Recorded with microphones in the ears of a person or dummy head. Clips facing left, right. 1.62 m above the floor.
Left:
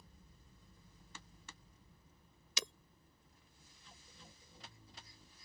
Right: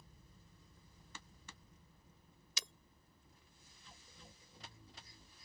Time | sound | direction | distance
2.6 | breaking glass | 65° left (ahead or behind) | ?